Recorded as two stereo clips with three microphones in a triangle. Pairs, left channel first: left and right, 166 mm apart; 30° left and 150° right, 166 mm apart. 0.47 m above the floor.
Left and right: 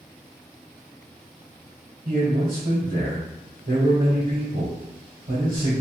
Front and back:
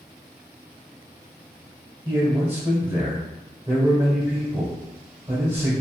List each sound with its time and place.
2.0 s a man speaking: 75° right, 1.6 m